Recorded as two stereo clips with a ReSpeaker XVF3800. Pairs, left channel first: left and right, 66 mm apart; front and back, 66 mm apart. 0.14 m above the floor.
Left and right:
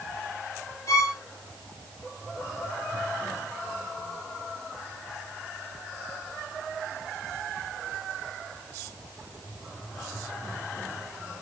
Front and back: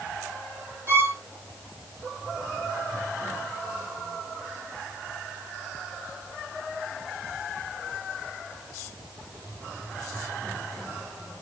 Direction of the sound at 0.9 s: 130° left.